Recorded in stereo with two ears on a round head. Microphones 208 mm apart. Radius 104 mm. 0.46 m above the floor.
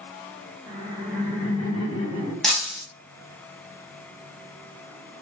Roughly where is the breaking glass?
Centre.